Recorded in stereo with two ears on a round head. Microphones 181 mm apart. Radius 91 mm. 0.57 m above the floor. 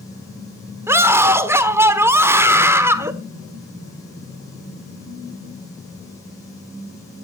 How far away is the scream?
About 1.3 m.